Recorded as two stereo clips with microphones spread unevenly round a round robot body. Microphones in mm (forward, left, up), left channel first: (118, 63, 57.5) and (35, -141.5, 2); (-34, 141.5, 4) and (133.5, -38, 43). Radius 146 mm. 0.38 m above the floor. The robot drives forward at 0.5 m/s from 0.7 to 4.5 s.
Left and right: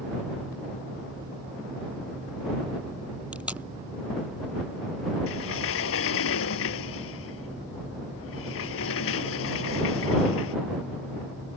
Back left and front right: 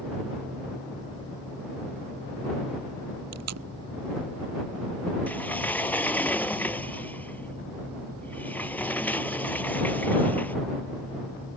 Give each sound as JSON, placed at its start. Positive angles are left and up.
{"t": 3.3, "sound": "tape being pulled", "azimuth_deg": -25}
{"t": 5.3, "sound": "a sliding door", "azimuth_deg": 50}